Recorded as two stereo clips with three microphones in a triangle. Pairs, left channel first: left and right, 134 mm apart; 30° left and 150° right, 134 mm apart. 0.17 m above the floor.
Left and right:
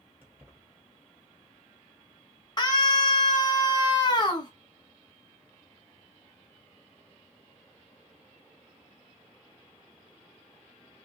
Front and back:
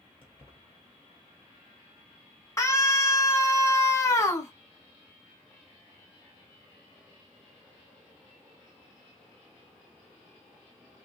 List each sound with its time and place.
0.2 s keys jangling: 15° right, 3 m
2.6 s a scream: 75° left, 1.5 m